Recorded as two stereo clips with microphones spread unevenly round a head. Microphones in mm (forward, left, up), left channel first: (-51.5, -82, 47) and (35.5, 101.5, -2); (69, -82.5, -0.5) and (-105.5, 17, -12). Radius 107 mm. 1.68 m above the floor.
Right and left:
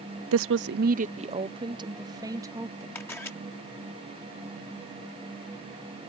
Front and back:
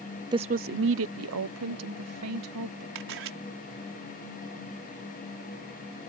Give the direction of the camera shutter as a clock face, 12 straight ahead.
6 o'clock.